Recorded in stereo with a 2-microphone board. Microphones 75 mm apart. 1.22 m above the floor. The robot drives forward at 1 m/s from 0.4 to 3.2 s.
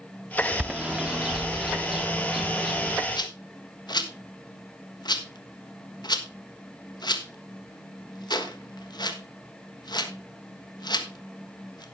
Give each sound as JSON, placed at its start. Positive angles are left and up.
{"t": 0.6, "sound": "a bird", "side_deg": -15, "distance_m": 0.7}
{"t": 3.1, "sound": "a rattle", "side_deg": 75, "distance_m": 1.3}